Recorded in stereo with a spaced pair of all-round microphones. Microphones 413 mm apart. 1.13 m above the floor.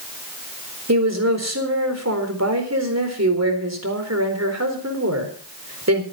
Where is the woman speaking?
40° right (ahead or behind), 4 m.